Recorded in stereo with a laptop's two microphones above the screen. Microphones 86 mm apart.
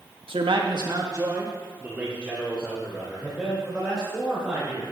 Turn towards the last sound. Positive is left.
turn(degrees=5)  # may be behind; listen again after turning